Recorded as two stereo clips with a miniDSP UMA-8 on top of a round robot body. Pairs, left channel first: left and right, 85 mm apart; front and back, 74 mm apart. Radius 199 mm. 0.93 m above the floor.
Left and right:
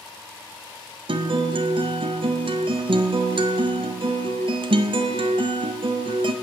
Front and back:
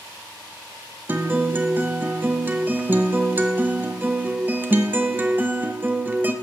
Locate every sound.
1.1 s a guitar: 115° right, 0.6 m